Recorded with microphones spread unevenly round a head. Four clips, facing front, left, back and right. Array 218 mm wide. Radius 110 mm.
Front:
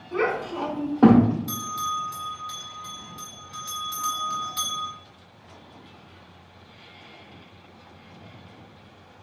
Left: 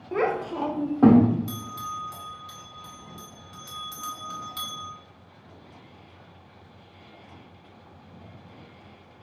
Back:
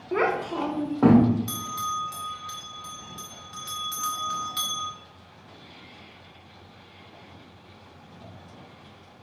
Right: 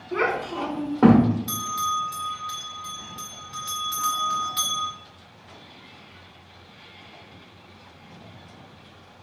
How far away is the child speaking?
About 1.0 m.